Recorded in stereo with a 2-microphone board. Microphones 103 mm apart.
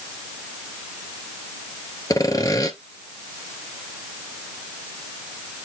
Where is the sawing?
35° left (ahead or behind), 1.1 m.